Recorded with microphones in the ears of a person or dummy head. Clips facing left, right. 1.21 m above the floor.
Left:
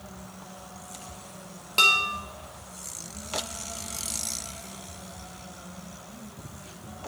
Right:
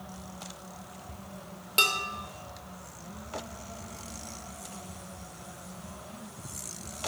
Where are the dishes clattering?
10° right (ahead or behind), 1.0 m.